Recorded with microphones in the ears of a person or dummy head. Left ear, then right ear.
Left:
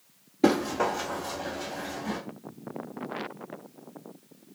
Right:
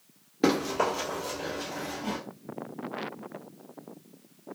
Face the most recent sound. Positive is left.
turn(degrees=-35)  # may be behind; listen again after turning